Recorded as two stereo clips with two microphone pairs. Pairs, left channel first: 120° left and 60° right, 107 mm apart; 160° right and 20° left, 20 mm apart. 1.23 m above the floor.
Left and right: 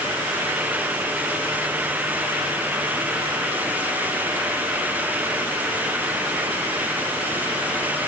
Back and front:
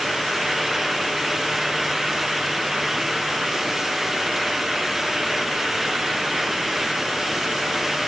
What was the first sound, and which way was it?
Only background noise.